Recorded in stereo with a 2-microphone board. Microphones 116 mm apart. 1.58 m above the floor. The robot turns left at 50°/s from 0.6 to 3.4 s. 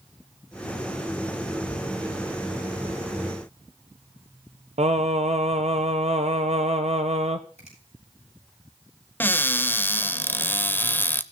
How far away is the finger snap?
About 7.5 m.